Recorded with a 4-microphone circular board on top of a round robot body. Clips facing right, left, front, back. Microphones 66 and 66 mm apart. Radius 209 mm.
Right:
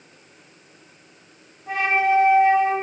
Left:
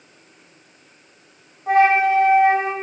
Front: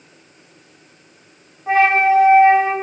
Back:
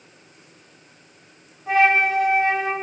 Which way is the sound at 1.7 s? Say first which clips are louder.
Left 5 dB, front 4 dB; 60° left.